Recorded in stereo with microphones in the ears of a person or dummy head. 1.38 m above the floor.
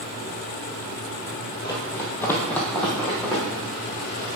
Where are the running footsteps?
25° left (ahead or behind), 1.9 m; by 3.4 s centre (ahead or behind), 3.5 m.